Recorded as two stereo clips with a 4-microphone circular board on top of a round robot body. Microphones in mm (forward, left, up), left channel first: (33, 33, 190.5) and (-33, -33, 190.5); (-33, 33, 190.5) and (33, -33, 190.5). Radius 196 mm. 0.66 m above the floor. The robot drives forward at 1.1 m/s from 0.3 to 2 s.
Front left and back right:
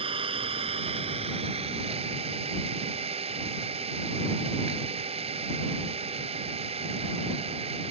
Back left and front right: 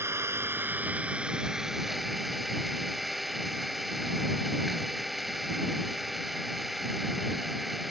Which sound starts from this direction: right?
An engine running, at 0.0 s.